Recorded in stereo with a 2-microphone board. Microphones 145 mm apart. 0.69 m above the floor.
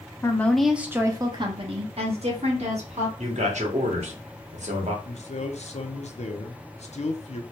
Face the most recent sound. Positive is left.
turn(degrees=50)  # may be behind; listen again after turning